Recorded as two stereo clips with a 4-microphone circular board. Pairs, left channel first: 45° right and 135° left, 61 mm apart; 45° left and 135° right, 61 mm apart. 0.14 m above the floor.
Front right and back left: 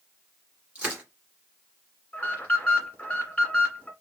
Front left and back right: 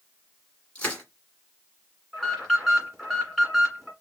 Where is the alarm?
45° right, 1.8 m.